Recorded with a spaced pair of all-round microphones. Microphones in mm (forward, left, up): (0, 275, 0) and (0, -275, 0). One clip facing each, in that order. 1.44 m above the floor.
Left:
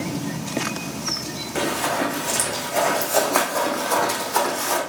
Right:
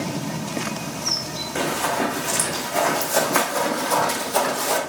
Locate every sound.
1.6 s running footsteps: 20° right (ahead or behind), 4.5 m; by 4.8 s 55° right (ahead or behind), 2.5 m